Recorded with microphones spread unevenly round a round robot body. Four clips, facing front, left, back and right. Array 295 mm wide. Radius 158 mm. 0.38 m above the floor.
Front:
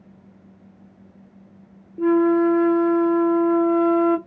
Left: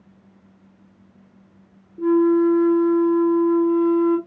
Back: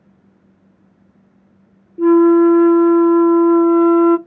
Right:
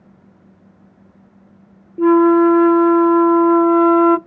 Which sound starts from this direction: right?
A flute, at 2.0 s.